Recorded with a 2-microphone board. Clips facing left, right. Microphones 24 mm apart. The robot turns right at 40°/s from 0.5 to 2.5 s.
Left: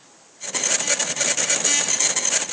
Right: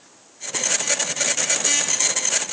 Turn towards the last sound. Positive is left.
No sound to turn to.